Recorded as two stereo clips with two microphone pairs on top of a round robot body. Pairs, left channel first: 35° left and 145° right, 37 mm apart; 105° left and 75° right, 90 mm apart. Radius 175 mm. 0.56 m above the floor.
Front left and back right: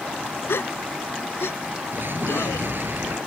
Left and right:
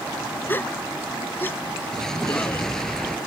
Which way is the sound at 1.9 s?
170° right.